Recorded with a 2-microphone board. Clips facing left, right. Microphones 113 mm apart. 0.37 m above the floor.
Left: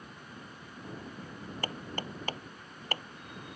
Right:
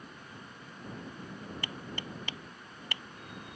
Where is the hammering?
40° left (ahead or behind).